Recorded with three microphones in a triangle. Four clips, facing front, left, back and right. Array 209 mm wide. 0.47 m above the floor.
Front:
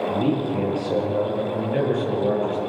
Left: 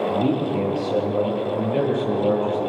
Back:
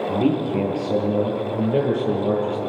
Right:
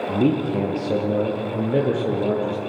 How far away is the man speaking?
About 9.5 m.